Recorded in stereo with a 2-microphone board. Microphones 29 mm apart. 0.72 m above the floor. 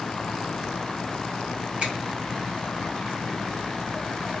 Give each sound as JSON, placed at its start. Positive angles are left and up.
{"t": 1.8, "sound": "a finger snap", "side_deg": -40, "distance_m": 2.5}